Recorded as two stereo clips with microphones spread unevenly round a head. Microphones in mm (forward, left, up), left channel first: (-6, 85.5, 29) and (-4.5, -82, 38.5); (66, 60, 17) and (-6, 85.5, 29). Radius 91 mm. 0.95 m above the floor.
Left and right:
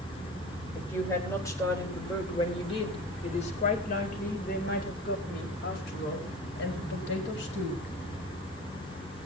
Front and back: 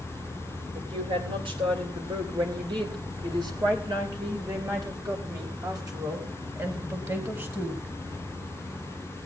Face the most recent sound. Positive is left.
turn(degrees=110)